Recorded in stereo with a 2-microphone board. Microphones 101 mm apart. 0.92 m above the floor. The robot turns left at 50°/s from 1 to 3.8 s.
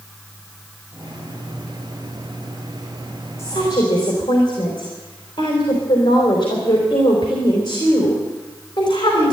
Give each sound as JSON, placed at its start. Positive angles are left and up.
{"t": 3.4, "sound": "a woman speaking", "side_deg": 30, "distance_m": 3.5}